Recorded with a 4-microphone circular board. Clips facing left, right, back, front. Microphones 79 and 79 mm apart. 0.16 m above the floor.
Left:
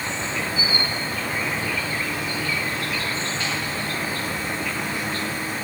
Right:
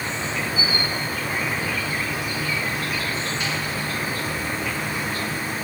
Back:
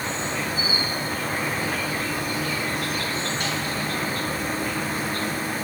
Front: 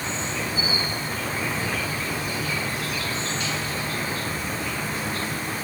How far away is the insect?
About 1.7 m.